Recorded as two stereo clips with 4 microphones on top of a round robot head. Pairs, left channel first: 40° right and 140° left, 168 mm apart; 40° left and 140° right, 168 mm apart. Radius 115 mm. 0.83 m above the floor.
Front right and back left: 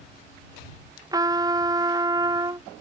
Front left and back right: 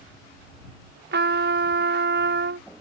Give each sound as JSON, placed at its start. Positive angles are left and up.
{"t": 1.1, "sound": "a trumpet", "azimuth_deg": -155}